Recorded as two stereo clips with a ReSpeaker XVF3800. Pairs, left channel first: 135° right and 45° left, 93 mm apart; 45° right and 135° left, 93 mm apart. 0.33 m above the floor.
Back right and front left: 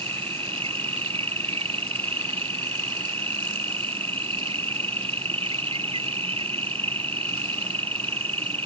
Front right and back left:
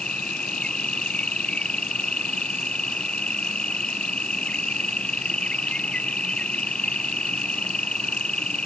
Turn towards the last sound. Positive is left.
turn(degrees=35)